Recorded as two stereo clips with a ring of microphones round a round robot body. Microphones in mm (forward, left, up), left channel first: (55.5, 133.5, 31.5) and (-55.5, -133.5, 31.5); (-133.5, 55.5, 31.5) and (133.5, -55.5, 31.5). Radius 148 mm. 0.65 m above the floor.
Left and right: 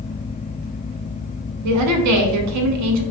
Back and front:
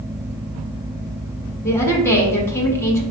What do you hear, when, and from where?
1.6 s a woman speaking: 120° right, 0.9 m